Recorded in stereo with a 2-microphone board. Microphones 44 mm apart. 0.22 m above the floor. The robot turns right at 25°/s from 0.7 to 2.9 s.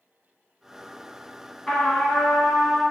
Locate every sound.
1.7 s a trumpet: 10° left (ahead or behind), 1.1 m; by 2.8 s 30° left (ahead or behind), 1.1 m